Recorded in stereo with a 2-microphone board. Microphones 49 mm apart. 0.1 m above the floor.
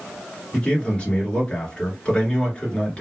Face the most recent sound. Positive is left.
turn(degrees=20)  # may be behind; listen again after turning